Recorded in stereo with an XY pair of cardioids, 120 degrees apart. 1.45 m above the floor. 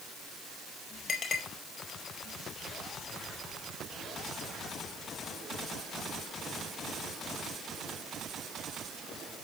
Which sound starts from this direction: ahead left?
A clink, at 1.1 s.